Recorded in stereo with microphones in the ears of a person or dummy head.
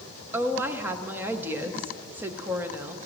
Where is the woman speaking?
10° right (ahead or behind), 0.7 m.